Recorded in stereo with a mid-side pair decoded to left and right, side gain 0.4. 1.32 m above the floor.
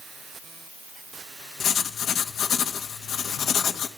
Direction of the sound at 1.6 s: 70° left.